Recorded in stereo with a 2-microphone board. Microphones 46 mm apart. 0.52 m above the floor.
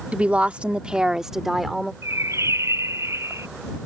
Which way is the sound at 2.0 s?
85° right.